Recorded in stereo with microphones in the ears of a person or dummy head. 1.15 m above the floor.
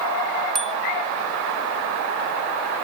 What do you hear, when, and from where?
0.6 s a bicycle bell: 5° left (ahead or behind)